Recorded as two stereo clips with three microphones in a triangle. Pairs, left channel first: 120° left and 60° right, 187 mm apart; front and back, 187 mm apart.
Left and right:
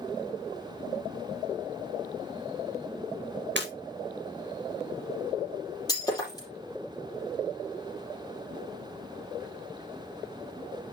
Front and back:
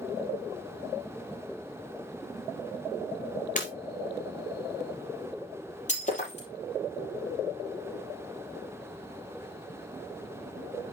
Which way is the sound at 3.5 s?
45° right.